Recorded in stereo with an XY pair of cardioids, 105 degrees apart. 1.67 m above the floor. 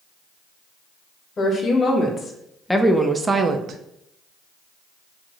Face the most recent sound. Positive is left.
turn(degrees=-60)